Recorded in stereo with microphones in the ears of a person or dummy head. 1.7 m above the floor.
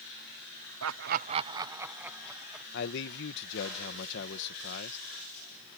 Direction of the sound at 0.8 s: 85° right.